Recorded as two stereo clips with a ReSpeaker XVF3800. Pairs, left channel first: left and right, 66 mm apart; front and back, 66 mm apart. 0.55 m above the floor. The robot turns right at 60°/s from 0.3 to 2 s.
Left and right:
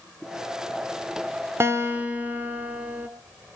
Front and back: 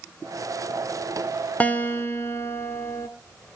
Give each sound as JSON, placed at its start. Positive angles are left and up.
{"t": 1.6, "sound": "a guitar", "azimuth_deg": -60, "distance_m": 1.8}